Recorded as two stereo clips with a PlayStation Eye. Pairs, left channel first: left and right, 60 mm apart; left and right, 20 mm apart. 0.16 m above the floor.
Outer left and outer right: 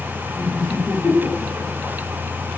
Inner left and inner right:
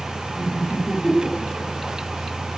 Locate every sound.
0.4 s laughter: 30° left (ahead or behind), 2 m; by 1.9 s 5° right (ahead or behind), 1.5 m